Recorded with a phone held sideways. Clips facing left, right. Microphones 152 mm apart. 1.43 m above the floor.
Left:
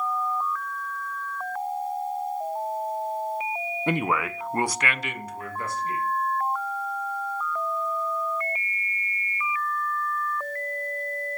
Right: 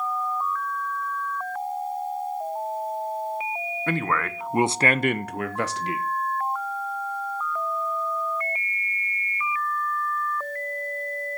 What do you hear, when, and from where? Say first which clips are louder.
3.9 s a man speaking: left 1 dB; 20° left (ahead or behind), 1.1 m; by 6.0 s 80° right, 1.4 m